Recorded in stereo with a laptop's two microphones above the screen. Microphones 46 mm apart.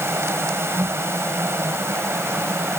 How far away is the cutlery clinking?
I don't hear cutlery clinking.